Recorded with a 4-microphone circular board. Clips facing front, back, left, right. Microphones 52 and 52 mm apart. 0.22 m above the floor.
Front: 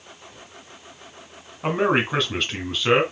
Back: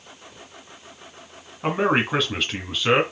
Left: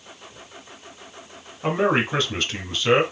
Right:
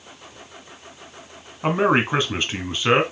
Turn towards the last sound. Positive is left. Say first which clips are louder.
# even, right 2 dB
turn(degrees=-95)